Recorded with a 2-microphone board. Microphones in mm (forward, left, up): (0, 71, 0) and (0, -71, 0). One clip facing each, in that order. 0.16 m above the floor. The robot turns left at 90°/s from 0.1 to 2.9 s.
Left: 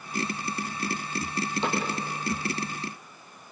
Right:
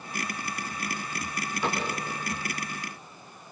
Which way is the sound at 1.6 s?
25° left (ahead or behind).